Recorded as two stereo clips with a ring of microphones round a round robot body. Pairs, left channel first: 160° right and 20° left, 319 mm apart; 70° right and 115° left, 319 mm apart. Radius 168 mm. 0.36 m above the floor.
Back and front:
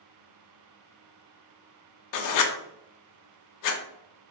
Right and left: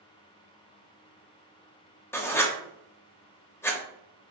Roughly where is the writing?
Behind right.